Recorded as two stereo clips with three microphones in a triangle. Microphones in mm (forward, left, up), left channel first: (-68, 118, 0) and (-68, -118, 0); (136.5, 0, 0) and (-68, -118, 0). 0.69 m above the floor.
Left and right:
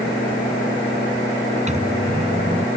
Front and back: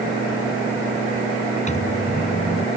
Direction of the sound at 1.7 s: 30° right.